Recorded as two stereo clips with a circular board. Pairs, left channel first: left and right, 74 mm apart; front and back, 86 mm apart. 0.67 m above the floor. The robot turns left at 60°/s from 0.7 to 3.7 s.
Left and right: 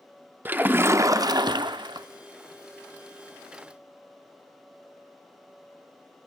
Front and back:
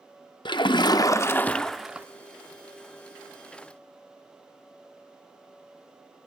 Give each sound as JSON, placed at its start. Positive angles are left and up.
{"t": 0.5, "sound": "a splash", "azimuth_deg": -25, "distance_m": 0.6}